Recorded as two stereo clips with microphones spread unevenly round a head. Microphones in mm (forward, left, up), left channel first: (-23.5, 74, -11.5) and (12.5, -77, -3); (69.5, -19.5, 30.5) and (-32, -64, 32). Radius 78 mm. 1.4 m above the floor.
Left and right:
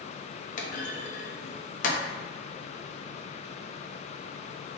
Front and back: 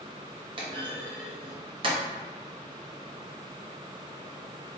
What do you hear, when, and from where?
0.6 s a clunk: 150° left, 0.6 m